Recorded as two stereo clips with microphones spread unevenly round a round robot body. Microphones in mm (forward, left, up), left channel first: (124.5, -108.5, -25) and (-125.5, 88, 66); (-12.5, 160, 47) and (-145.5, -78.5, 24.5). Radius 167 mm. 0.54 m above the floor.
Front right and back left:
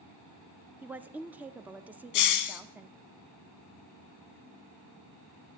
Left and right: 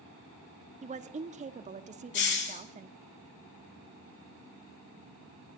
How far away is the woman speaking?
About 0.7 m.